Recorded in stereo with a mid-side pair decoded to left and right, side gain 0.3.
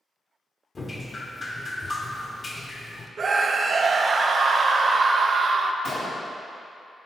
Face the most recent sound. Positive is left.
turn(degrees=70)